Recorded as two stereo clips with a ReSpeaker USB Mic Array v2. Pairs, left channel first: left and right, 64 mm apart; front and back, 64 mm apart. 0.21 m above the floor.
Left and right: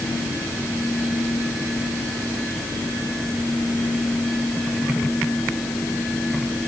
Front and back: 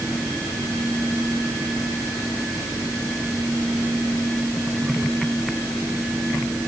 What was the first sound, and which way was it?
Only background noise.